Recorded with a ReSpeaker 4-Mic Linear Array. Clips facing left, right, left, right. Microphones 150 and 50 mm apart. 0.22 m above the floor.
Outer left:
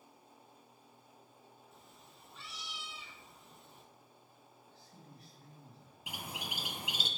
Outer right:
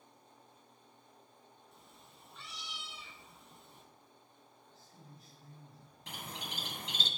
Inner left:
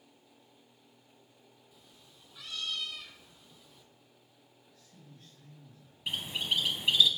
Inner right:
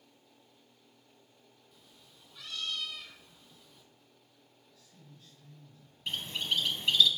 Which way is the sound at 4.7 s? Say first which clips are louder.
Outer left 1 dB, inner left 2 dB; 55° left (ahead or behind).